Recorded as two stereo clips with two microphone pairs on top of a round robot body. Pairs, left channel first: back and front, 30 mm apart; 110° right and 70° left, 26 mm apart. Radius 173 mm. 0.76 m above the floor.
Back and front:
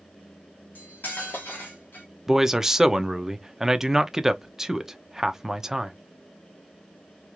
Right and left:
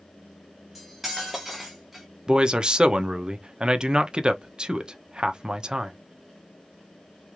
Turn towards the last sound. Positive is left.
turn(degrees=20)